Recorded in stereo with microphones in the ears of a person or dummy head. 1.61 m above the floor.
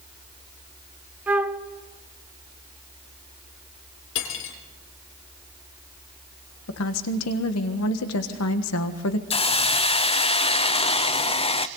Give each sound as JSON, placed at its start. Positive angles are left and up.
{"t": 1.3, "sound": "a flute", "side_deg": -10, "distance_m": 0.7}
{"t": 4.2, "sound": "cutlery clinking", "side_deg": 65, "distance_m": 2.5}
{"t": 6.7, "sound": "a woman speaking", "side_deg": 80, "distance_m": 1.6}
{"t": 9.3, "sound": "a hiss", "side_deg": 30, "distance_m": 0.6}